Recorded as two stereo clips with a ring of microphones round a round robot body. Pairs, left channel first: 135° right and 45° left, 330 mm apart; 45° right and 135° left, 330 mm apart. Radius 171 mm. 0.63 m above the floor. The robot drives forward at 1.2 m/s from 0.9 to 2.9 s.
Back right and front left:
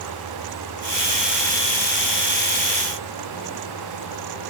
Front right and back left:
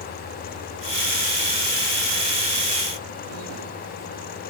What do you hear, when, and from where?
Only background noise.